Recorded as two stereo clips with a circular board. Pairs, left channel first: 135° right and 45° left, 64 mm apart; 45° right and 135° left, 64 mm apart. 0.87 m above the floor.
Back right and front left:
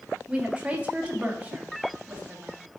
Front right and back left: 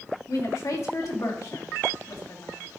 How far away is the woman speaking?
About 1.6 m.